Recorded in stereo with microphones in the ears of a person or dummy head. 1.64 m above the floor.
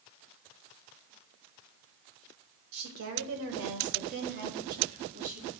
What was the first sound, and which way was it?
A woman speaking, 60° right (ahead or behind).